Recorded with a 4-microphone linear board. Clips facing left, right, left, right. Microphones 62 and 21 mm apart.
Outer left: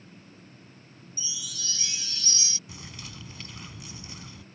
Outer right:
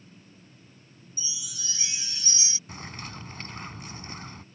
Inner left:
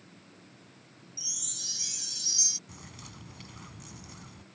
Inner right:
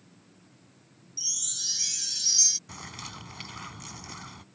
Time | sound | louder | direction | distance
1.2 | a chime | outer left 2 dB, inner right 4 dB | 25° right (ahead or behind) | ?
2.7 | a bird | outer right 4 dB, inner right 7 dB | 45° right (ahead or behind) | ?